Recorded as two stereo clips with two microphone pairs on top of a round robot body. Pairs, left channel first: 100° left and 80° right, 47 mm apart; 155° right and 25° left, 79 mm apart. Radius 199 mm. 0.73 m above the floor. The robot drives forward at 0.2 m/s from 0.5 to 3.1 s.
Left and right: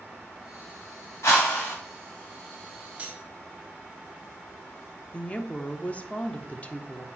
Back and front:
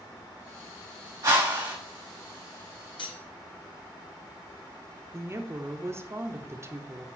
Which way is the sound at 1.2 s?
65° left.